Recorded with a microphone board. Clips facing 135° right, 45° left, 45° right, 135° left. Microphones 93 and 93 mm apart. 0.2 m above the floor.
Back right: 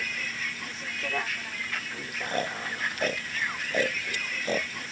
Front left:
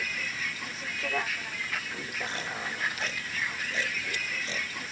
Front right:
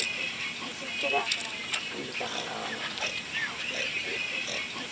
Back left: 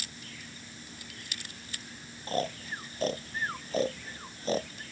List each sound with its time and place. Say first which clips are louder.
0.0 s a vehicle: even, front right 9 dB; 45° right
2.3 s snoring: back right 5 dB, back left 2 dB; 175° right